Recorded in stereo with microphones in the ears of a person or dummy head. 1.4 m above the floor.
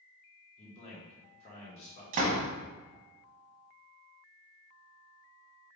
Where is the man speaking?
35° left (ahead or behind), 1.5 m.